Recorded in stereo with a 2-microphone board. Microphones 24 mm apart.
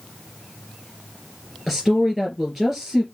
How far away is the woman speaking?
About 3.5 m.